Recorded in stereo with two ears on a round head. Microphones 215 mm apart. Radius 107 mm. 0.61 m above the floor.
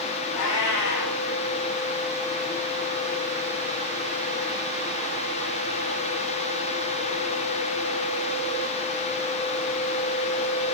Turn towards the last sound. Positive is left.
turn(degrees=70)  # may be behind; listen again after turning